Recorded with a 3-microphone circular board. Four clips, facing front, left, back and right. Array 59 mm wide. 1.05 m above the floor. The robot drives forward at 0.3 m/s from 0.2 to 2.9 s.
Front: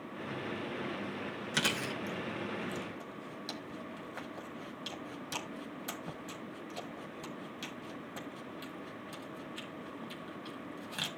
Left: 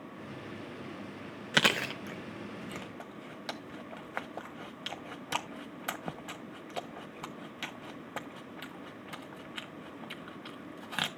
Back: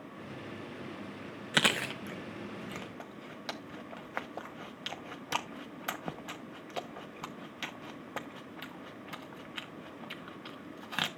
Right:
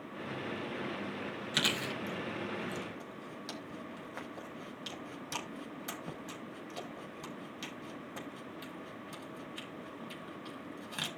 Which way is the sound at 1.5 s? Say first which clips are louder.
Left 7 dB, back 5 dB; 120° left.